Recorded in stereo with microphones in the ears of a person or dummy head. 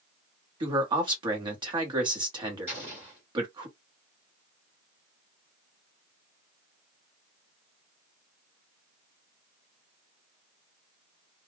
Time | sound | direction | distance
0.6 | a man speaking | 25° right (ahead or behind) | 1.0 m
2.7 | an explosion | 15° right (ahead or behind) | 1.5 m